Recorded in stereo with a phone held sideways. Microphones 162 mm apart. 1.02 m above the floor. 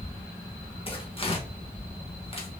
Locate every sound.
0.9 s tearing paper: 35° left (ahead or behind), 0.8 m